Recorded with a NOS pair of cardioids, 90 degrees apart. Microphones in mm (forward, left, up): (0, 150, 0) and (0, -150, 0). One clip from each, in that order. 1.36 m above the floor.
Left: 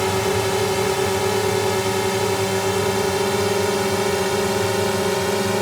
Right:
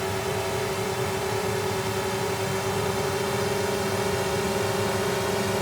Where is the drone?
60° left; by 5.6 s 45° left.